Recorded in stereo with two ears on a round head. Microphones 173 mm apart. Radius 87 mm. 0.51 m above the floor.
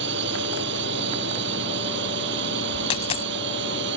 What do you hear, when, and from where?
0.0 s a drone: 60° right (ahead or behind)
2.9 s a dropped coin: 30° left (ahead or behind)